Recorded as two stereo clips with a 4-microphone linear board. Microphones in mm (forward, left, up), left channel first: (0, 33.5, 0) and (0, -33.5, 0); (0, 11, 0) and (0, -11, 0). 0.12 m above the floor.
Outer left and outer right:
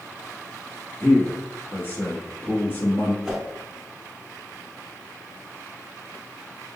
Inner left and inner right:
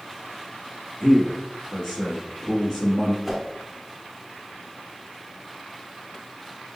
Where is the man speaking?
30° left (ahead or behind), 1.4 m.